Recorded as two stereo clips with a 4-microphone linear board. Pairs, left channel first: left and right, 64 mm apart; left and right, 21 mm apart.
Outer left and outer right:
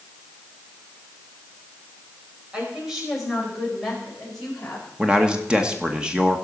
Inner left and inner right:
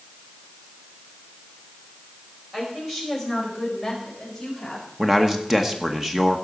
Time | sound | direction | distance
2.5 | a woman speaking | 10° right (ahead or behind) | 5 m
5.0 | a man speaking | 15° right (ahead or behind) | 1.1 m